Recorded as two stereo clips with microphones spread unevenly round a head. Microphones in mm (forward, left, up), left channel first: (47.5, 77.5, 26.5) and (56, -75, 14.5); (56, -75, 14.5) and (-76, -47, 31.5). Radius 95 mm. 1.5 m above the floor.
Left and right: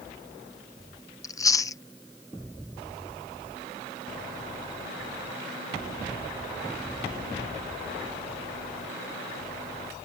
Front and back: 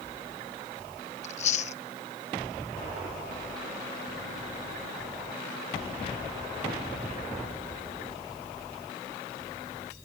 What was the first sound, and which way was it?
Chewing, 35° left.